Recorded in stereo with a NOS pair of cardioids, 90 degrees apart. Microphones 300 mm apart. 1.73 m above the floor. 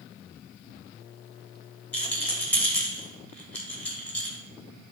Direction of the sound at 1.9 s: 5° left.